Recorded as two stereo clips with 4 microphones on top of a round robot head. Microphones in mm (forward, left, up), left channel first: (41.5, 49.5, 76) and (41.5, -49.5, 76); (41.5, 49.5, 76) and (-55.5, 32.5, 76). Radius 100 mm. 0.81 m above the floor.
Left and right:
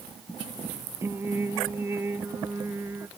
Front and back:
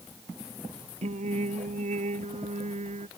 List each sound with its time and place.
1.0 s singing: 165° right